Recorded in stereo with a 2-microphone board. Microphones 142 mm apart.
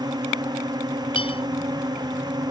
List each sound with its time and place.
0.0 s a drone: 30° right (ahead or behind)
1.1 s a clink: 40° left (ahead or behind)